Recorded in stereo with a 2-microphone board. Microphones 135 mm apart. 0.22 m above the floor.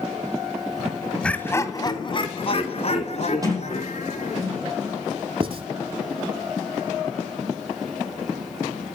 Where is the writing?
40° right (ahead or behind), 1.1 m.